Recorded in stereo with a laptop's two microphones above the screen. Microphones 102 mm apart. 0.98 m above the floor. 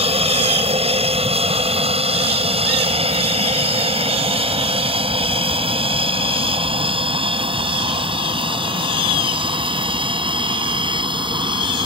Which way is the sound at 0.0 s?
75° right (ahead or behind).